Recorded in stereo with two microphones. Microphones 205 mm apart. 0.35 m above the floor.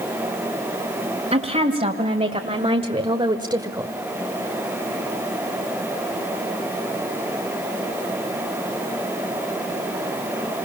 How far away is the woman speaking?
About 2 m.